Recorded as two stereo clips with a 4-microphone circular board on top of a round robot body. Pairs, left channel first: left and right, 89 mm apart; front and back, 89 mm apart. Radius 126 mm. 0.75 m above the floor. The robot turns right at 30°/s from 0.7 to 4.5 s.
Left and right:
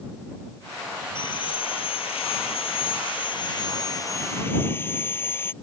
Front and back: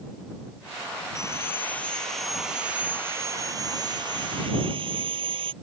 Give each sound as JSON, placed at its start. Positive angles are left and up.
{"t": 1.1, "sound": "sawing", "azimuth_deg": 55}